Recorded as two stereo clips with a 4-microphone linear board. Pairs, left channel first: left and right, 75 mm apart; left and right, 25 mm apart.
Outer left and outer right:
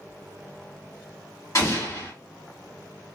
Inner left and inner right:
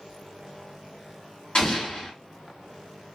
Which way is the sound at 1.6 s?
45° left (ahead or behind).